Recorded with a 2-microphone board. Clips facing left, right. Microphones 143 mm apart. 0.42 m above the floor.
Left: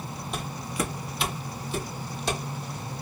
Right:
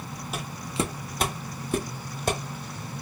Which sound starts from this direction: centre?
Footsteps, at 0.3 s.